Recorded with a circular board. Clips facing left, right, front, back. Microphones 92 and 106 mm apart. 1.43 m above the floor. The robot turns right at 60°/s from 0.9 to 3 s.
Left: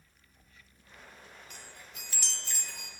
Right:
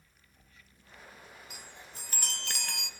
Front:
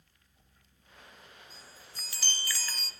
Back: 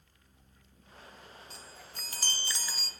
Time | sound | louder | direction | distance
1.5 | a chime | right 1 dB, back 3 dB | 175° right | 0.7 m